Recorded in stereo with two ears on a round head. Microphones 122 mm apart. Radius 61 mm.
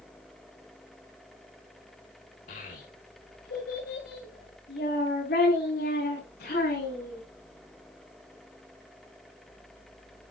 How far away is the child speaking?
About 2.0 m.